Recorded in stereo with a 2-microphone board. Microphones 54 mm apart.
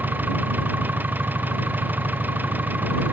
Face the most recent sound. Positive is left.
turn(degrees=-30)  # may be behind; listen again after turning